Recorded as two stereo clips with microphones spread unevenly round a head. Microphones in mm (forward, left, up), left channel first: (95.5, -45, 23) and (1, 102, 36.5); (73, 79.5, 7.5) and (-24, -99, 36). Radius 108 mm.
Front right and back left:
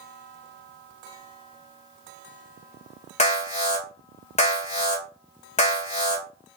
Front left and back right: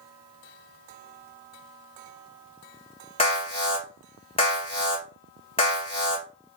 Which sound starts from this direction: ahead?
An alarm, at 3.2 s.